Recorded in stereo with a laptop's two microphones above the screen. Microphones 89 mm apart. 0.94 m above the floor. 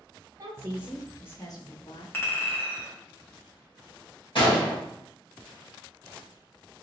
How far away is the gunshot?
About 1.5 m.